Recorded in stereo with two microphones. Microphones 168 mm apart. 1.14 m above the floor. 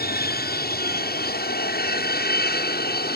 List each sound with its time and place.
0.0 s an aircraft: 70° left (ahead or behind)